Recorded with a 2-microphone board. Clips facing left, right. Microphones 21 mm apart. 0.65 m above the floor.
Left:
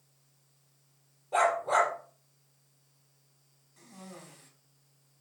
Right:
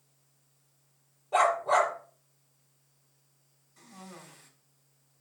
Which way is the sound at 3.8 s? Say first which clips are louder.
Even; 5° right (ahead or behind).